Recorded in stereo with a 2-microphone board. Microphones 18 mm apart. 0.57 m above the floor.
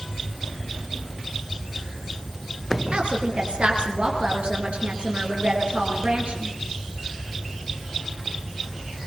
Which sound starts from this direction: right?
A woman speaking, at 2.9 s.